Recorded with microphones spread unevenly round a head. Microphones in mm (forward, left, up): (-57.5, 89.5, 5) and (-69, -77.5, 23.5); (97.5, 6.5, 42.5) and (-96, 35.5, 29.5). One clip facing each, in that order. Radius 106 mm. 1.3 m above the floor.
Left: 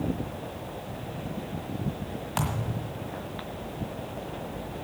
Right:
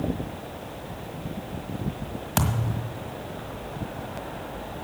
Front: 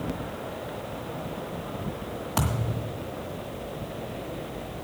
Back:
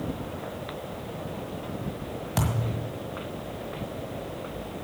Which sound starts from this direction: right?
A thud, at 2.4 s.